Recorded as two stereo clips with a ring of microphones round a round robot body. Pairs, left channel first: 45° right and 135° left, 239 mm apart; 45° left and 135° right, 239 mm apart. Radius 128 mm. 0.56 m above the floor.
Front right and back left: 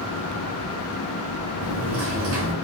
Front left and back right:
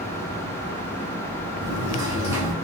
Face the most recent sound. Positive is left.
turn(degrees=150)